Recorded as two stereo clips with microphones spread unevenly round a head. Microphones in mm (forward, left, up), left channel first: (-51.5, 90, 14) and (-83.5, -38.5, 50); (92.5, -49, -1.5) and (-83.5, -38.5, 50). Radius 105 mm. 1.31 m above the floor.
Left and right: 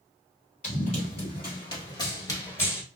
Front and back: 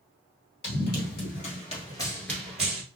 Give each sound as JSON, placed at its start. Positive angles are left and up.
{"t": 0.6, "sound": "running footsteps", "azimuth_deg": 20, "distance_m": 1.6}